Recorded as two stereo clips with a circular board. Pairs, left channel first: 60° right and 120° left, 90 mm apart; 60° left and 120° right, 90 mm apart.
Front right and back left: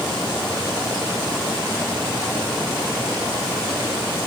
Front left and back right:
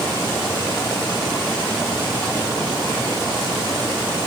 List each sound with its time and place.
Only background noise.